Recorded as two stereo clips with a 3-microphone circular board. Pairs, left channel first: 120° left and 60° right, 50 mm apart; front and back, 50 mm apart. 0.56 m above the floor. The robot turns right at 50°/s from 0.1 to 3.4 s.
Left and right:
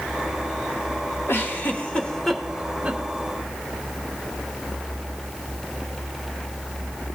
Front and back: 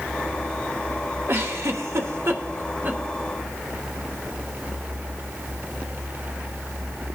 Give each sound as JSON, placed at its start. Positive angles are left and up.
{"t": 1.3, "sound": "a giggle", "azimuth_deg": 150, "distance_m": 1.1}